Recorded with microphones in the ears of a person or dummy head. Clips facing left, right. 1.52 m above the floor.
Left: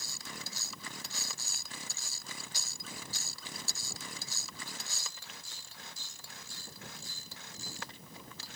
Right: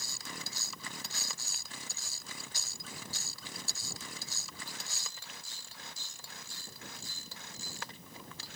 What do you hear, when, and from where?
Only background noise.